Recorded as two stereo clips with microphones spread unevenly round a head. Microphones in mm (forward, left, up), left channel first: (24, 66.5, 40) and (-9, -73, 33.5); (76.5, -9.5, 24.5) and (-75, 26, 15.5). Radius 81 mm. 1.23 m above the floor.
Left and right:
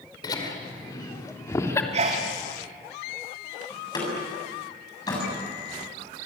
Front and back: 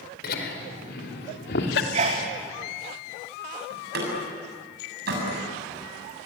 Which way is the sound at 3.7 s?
140° left.